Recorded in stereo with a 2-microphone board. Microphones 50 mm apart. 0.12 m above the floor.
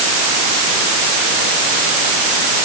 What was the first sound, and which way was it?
Only background noise.